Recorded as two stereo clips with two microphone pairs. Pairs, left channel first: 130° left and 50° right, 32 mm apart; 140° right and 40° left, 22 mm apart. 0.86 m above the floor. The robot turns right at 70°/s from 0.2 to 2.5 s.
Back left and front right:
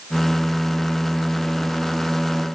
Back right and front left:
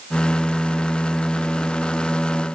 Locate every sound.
Only background noise.